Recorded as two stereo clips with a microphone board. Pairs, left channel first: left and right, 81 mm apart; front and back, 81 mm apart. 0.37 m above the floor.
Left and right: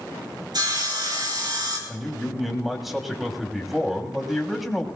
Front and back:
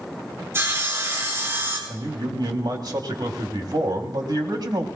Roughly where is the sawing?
Behind right.